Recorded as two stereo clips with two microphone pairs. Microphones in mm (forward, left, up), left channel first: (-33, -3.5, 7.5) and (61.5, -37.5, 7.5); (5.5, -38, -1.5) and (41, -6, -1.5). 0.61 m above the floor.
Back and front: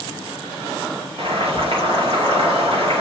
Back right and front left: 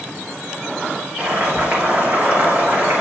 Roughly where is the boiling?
Ahead.